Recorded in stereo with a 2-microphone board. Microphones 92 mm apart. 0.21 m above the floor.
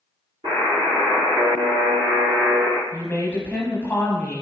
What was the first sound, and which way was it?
A buzzer, 70° right (ahead or behind).